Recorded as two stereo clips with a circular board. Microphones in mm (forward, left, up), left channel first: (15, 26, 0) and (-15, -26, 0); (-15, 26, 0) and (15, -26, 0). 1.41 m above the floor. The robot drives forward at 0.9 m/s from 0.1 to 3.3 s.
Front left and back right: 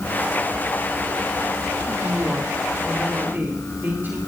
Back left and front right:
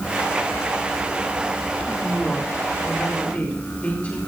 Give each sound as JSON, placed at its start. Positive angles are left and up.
{"t": 2.0, "sound": "a woman speaking", "azimuth_deg": -175, "distance_m": 4.0}